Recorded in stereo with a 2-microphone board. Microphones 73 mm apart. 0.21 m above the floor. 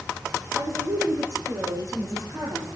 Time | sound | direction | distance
0.5 | a woman speaking | 40° right (ahead or behind) | 4 m